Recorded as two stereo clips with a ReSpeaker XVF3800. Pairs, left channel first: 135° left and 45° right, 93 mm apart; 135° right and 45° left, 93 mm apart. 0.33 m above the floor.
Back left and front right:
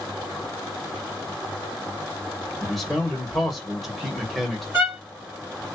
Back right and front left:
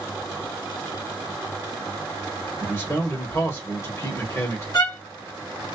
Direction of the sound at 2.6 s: 140° right.